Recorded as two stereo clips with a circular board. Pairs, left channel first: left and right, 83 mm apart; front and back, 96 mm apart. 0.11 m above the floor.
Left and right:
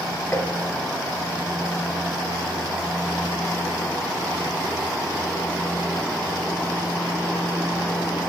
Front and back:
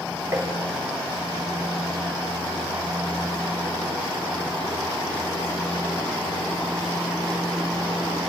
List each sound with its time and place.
0.3 s tapping: 135° left, 1.5 m